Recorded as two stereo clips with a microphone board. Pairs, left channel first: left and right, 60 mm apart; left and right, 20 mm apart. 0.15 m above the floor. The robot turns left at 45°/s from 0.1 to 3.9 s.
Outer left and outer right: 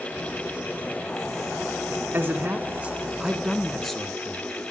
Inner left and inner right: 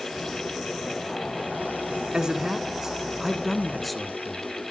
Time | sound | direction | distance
2.1 | a man speaking | 115° right | 1.7 m